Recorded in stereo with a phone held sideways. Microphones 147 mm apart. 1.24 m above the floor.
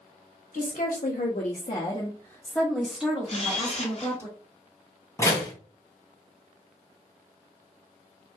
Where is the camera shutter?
45° left (ahead or behind), 0.8 m.